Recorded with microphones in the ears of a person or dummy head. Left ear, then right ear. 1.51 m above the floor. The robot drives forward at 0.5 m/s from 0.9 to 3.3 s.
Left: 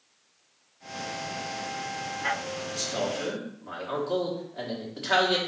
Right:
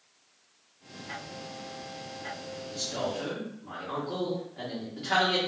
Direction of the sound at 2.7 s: 35° left (ahead or behind).